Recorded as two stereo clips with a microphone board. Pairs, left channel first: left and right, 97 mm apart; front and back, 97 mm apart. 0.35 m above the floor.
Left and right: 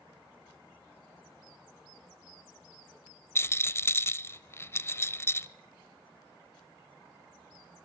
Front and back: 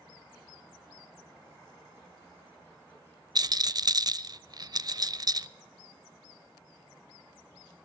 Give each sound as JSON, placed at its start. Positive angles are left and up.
{"t": 3.4, "sound": "a rattle", "azimuth_deg": 145, "distance_m": 0.5}